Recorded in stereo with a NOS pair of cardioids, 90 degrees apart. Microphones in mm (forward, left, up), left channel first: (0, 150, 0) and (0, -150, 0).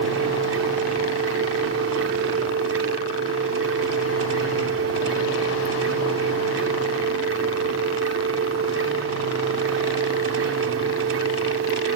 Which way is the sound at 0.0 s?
50° right.